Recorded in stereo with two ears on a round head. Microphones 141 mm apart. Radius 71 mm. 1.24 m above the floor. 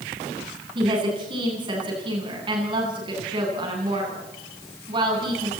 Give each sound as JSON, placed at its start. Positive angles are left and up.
{"t": 0.8, "sound": "a woman speaking", "side_deg": -30, "distance_m": 9.5}